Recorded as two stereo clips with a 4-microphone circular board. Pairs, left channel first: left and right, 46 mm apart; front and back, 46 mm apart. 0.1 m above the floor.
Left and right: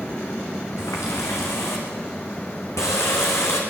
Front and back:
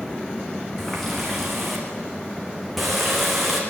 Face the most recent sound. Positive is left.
turn(degrees=90)